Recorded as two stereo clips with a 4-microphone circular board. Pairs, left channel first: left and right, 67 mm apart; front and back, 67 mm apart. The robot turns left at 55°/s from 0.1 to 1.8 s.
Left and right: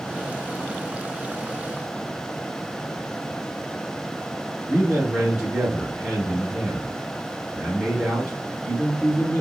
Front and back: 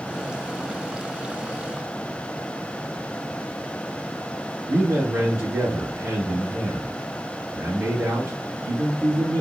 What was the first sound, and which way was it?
A man speaking, 175° right.